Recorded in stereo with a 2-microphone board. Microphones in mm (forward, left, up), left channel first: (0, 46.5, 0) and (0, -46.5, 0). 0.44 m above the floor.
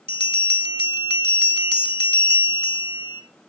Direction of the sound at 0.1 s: 60° left (ahead or behind).